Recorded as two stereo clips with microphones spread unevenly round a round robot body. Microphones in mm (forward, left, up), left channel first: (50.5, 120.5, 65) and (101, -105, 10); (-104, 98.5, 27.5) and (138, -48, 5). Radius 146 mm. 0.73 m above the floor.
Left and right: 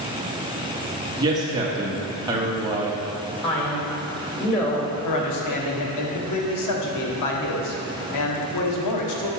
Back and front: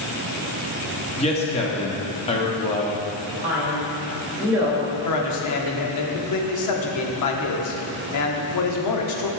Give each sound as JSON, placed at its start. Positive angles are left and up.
{"t": 1.2, "sound": "a man speaking", "azimuth_deg": -140, "distance_m": 1.2}
{"t": 3.4, "sound": "a man speaking", "azimuth_deg": 50, "distance_m": 3.0}
{"t": 5.0, "sound": "a man speaking", "azimuth_deg": 120, "distance_m": 1.3}